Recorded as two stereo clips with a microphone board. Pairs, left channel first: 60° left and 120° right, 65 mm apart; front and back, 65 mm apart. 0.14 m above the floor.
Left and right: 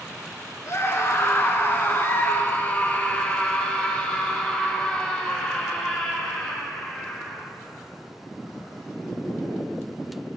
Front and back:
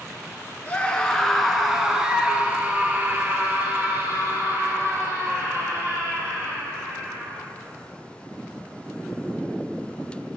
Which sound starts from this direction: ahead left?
A scream, at 0.7 s.